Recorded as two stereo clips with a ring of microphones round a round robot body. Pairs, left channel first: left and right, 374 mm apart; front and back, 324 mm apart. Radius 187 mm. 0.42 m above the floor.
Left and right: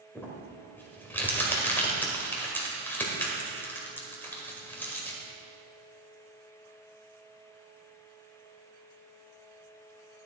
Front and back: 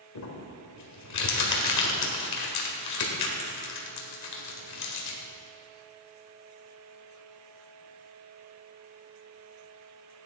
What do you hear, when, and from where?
0.1 s crumpling: 5° left, 1.9 m